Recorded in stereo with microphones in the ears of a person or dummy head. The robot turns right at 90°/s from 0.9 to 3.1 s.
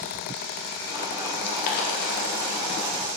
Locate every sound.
1.4 s boiling: 30° left (ahead or behind), 2.0 m; by 3.1 s 5° left (ahead or behind), 2.0 m